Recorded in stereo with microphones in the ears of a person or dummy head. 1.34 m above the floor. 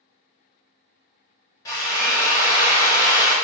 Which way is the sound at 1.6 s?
15° left (ahead or behind).